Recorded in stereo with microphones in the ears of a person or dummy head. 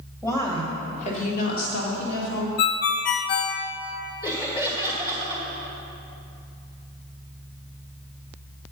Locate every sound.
0.2 s a woman speaking: 15° left (ahead or behind), 1.9 m; by 2.5 s 70° left (ahead or behind), 2.5 m
2.6 s a ringtone: 45° left (ahead or behind), 0.6 m
4.2 s laughter: 20° left (ahead or behind), 1.8 m